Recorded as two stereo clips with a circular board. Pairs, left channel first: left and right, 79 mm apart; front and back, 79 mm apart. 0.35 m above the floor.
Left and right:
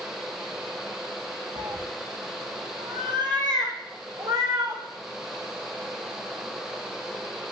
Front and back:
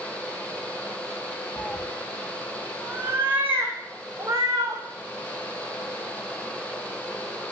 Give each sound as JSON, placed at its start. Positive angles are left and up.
{"t": 1.6, "sound": "a cat meowing", "azimuth_deg": -65, "distance_m": 1.1}